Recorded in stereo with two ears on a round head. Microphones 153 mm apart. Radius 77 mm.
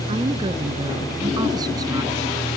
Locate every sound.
0.1 s a woman speaking: 30° right (ahead or behind); by 2.3 s 20° right (ahead or behind)